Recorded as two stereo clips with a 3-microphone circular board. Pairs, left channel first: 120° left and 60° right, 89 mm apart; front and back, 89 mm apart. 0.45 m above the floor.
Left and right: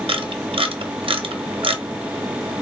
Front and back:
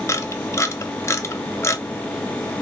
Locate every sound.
0.1 s a camera shutter: 60° right, 0.7 m